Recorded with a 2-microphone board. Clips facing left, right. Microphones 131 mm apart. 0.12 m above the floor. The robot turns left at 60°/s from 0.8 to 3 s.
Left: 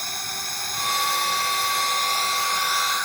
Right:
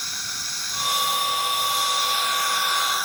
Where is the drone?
125° left; by 3.1 s 10° right.